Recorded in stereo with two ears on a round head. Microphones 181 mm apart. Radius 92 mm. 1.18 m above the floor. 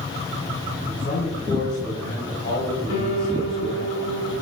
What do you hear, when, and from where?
0.8 s a man speaking: 75° left (ahead or behind), 4 m
2.9 s a piano: 80° left, 4 m